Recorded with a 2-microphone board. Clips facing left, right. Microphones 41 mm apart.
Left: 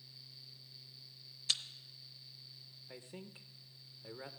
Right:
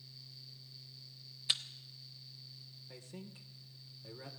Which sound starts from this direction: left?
A man speaking, at 2.9 s.